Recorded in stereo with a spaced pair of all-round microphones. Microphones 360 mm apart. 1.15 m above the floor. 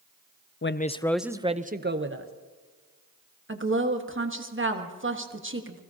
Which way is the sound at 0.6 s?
35° left (ahead or behind).